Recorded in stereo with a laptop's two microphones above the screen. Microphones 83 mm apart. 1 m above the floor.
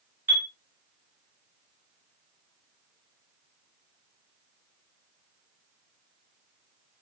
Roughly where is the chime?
Right.